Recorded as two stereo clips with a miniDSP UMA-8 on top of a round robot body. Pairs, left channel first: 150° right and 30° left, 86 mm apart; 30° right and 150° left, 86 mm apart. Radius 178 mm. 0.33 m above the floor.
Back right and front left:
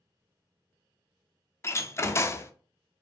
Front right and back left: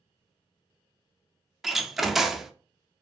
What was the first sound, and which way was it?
A door slam, 125° right.